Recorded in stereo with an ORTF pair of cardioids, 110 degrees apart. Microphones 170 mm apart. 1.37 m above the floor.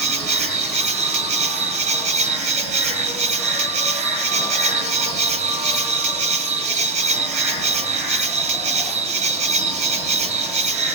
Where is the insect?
40° right, 0.8 m.